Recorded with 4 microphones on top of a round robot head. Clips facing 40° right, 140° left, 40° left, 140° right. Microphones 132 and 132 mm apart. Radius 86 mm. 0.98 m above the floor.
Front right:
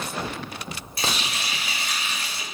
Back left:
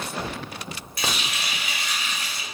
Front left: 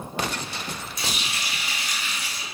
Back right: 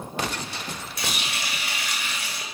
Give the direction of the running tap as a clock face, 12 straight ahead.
3 o'clock.